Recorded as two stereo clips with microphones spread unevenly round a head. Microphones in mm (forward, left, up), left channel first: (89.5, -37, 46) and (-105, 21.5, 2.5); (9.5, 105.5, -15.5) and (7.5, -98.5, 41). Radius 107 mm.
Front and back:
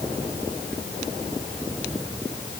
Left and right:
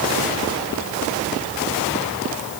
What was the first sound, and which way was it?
Only background noise.